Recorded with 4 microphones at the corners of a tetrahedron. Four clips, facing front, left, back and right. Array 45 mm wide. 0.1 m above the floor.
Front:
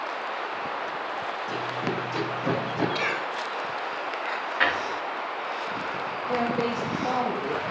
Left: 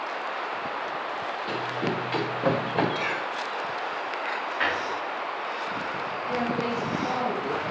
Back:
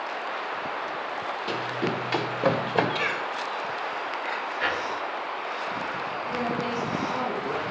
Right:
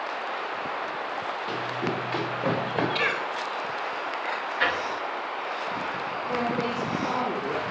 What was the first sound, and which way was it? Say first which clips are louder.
Running footsteps: left 2 dB, back 3 dB; 155° left.